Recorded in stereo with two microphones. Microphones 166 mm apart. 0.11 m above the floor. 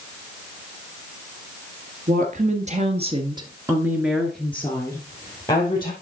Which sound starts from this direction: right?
A woman speaking, at 2.1 s.